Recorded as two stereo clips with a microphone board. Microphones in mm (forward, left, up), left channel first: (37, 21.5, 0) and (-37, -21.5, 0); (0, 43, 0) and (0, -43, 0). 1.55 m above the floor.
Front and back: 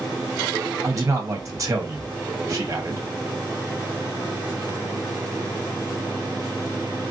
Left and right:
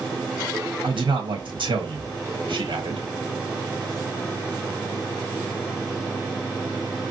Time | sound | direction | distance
0.8 | a man speaking | 95° right | 1.6 m